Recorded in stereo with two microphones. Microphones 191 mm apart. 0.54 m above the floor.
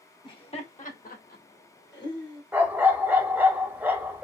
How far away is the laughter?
About 1.1 m.